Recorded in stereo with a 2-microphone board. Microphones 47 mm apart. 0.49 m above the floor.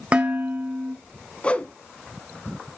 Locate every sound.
0.1 s dishes clattering: 25° right (ahead or behind), 1.6 m
1.4 s a whoosh: 25° left (ahead or behind), 0.8 m